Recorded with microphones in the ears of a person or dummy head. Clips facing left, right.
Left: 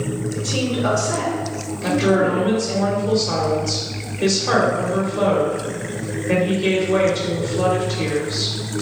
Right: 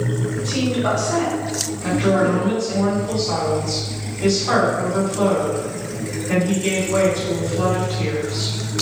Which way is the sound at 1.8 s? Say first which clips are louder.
Left 1 dB; 50° left (ahead or behind).